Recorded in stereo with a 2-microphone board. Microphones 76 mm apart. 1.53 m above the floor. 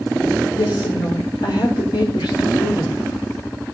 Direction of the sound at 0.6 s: 75° left (ahead or behind).